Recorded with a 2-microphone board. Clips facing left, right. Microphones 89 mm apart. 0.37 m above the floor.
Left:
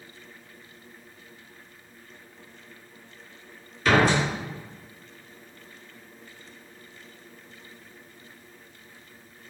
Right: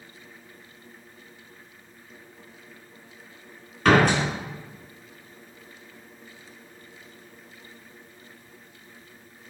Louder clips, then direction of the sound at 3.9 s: Right 2 dB; 65° right (ahead or behind).